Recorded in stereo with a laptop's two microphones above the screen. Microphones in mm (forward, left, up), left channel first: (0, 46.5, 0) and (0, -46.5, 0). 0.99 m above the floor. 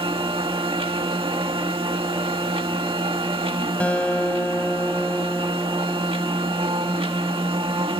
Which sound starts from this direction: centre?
A guitar, at 3.8 s.